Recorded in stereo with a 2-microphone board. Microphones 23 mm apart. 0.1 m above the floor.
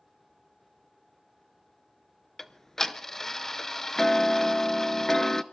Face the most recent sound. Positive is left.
turn(degrees=20)  # may be behind; listen again after turning